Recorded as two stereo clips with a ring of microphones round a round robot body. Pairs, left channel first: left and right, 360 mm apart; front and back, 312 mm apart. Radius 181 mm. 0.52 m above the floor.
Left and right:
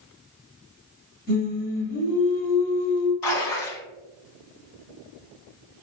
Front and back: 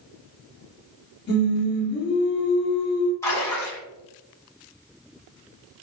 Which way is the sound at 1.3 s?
40° left.